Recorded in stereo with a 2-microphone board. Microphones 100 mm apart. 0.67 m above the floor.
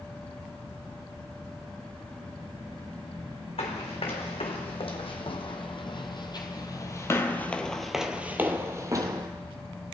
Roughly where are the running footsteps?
Left.